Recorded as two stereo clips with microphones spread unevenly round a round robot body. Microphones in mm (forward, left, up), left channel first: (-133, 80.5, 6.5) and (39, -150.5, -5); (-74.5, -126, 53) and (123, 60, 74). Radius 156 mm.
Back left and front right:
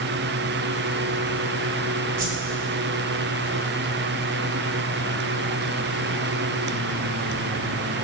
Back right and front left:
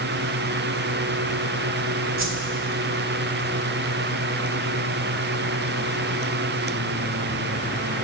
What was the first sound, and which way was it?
A whoosh, 5° left.